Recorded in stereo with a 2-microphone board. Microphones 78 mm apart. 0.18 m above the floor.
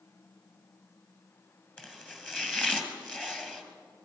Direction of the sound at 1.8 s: 10° left (ahead or behind).